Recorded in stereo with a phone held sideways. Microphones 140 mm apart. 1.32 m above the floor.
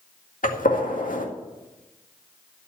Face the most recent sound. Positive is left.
turn(degrees=75)  # may be behind; listen again after turning